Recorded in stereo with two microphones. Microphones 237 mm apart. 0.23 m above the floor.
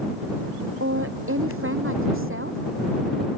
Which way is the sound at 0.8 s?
65° right (ahead or behind).